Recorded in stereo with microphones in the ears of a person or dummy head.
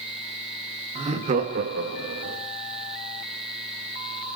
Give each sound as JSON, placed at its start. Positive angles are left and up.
{"t": 0.9, "sound": "laughter", "side_deg": -30, "distance_m": 1.7}